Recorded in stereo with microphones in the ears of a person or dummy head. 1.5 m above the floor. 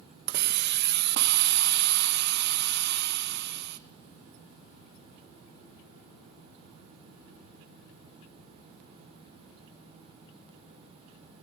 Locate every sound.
0.3 s a hiss: 60° right (ahead or behind), 0.7 m